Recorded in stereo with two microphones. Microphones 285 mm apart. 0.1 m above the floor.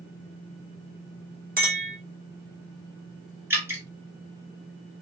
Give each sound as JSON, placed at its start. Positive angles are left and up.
{"t": 1.6, "sound": "a clink", "side_deg": -35, "distance_m": 1.1}
{"t": 3.5, "sound": "dripping", "side_deg": -10, "distance_m": 1.7}